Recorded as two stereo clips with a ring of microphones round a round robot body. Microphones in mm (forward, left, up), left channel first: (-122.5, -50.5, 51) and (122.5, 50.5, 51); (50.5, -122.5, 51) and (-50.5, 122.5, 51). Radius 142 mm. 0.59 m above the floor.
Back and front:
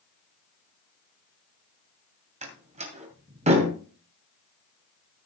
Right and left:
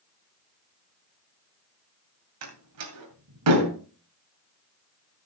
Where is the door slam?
85° left, 2.5 m.